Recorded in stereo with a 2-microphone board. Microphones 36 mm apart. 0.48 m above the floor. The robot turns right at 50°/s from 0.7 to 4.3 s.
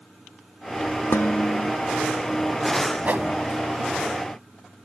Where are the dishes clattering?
75° left; by 1.7 s 105° left.